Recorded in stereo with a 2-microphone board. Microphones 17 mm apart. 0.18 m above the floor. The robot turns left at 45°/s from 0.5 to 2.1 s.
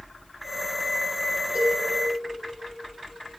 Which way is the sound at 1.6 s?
75° right (ahead or behind).